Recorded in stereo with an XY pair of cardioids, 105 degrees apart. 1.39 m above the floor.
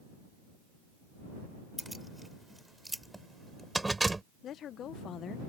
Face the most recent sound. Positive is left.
turn(degrees=65)